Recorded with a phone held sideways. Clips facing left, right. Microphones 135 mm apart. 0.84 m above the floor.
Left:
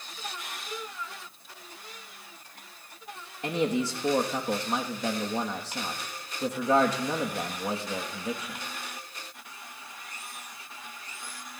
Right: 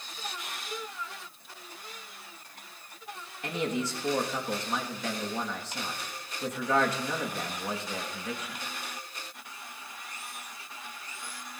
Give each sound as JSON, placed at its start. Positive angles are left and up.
{"t": 3.4, "sound": "a man speaking", "side_deg": 30, "distance_m": 1.3}